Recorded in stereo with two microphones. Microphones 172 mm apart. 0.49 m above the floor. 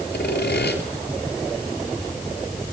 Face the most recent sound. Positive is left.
turn(degrees=80)